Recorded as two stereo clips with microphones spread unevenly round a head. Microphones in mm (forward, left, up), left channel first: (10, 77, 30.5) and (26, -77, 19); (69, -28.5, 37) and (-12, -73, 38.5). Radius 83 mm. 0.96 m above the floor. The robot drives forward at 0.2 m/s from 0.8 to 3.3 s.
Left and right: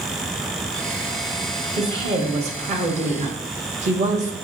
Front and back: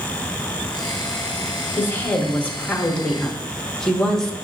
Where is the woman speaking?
40° right, 1.0 m; by 4.3 s 55° right, 0.8 m.